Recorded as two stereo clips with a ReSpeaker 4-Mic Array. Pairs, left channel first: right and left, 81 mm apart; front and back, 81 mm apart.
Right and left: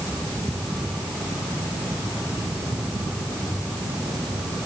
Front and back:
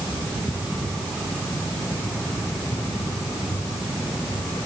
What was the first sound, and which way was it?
Only background noise.